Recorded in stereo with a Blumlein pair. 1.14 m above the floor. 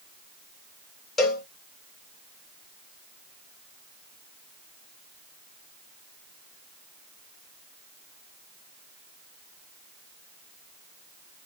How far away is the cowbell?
About 1.5 m.